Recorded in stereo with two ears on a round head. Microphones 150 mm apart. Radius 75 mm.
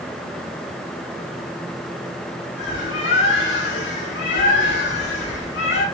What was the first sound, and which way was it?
A bird, 85° left.